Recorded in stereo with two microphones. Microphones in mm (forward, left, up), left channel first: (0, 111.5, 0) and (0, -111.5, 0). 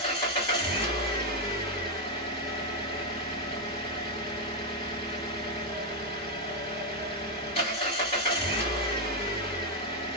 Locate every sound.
0.0 s an engine running: 25° left (ahead or behind), 1.9 m